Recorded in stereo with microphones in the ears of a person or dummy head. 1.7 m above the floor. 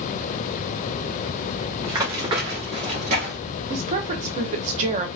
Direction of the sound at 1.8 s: 20° right (ahead or behind).